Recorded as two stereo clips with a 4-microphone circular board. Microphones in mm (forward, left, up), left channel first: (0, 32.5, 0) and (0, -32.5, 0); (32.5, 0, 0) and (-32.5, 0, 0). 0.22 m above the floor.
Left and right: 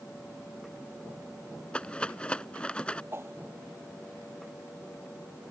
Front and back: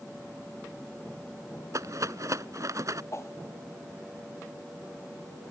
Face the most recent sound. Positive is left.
turn(degrees=-40)